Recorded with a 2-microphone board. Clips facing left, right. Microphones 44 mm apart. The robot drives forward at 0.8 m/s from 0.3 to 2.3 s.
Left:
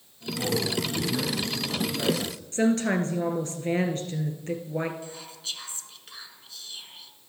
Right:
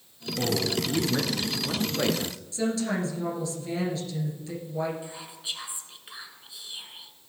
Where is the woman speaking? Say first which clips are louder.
Left 4 dB; 45° left (ahead or behind), 2.0 m.